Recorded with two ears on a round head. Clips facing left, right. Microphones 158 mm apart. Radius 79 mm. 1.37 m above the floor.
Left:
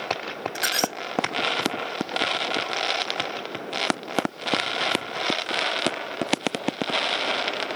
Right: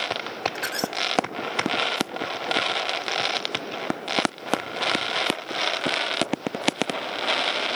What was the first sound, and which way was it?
A squeak, 35° left (ahead or behind).